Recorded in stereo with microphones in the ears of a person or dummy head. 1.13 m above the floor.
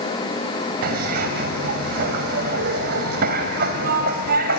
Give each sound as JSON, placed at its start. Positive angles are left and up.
{"t": 0.8, "sound": "a zipper", "side_deg": -55, "distance_m": 1.6}